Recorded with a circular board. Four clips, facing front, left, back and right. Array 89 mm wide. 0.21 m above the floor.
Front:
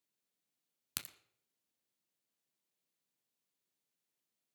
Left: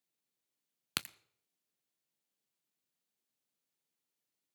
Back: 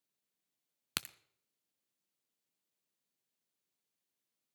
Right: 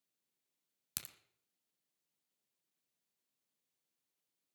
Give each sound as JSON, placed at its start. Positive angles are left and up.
{"t": 1.0, "sound": "a crack", "azimuth_deg": 120, "distance_m": 0.6}